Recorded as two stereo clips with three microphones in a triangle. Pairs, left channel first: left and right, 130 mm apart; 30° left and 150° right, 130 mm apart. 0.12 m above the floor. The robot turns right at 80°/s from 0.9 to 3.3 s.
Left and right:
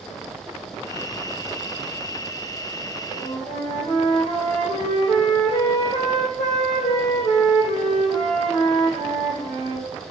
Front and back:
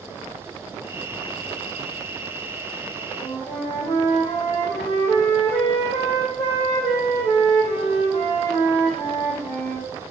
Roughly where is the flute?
Left.